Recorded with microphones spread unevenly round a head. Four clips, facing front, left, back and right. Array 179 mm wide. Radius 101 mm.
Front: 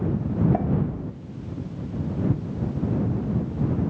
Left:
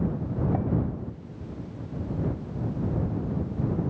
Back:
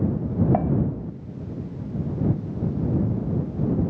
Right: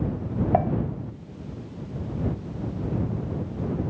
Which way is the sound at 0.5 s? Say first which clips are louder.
Right 11 dB, back 2 dB; 105° right.